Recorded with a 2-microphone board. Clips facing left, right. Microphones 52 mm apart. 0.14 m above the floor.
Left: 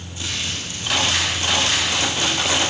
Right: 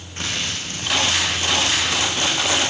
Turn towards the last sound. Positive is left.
turn(degrees=-55)  # may be behind; listen again after turning